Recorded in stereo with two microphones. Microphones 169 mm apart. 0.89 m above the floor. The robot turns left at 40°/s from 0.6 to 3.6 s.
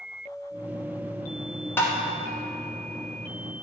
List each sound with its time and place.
1.8 s tapping: 15° left (ahead or behind), 1.1 m; by 1.9 s 20° left (ahead or behind), 1.1 m